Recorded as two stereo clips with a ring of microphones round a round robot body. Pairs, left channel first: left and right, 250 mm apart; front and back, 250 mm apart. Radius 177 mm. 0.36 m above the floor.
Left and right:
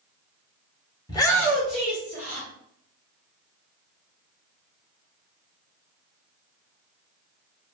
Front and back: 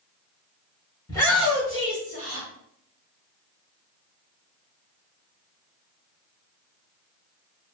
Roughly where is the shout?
Ahead left.